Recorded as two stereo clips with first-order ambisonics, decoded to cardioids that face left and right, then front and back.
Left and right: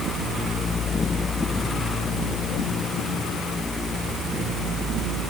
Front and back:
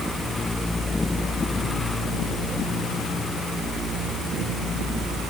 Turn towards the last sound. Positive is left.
No sound to turn to.